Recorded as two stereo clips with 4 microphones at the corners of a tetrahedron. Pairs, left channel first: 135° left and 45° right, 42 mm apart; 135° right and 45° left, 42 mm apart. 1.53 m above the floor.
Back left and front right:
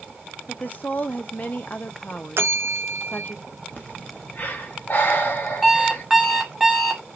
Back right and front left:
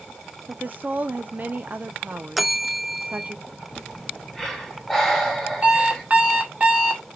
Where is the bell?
45° right, 0.5 m.